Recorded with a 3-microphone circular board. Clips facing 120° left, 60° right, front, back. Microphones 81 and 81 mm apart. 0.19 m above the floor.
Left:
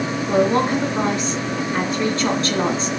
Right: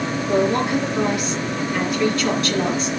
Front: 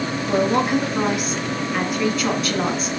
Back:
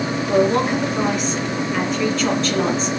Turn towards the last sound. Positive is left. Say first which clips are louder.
# left 2 dB, back 2 dB
turn(degrees=80)